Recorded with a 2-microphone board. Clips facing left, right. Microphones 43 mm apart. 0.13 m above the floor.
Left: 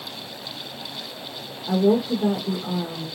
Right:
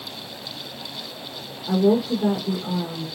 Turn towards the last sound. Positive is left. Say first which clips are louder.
# even
turn(degrees=15)  # may be behind; listen again after turning